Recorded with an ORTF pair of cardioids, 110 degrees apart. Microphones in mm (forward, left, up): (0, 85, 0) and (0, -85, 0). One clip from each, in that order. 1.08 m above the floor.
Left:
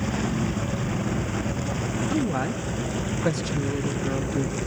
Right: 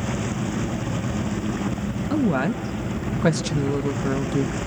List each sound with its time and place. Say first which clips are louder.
2.1 s a woman speaking: right 6 dB; 55° right, 1.2 m